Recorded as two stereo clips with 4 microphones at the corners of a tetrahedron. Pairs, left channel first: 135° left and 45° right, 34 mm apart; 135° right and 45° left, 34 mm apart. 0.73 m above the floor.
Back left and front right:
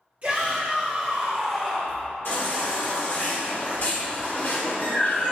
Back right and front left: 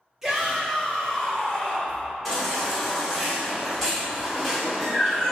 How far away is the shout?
About 1.4 m.